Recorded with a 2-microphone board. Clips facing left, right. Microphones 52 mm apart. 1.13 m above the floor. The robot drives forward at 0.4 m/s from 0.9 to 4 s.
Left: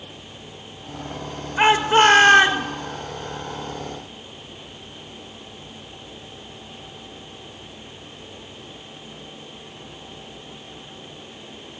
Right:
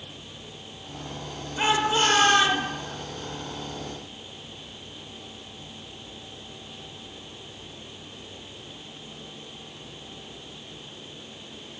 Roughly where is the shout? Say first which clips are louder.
Left 8 dB; left.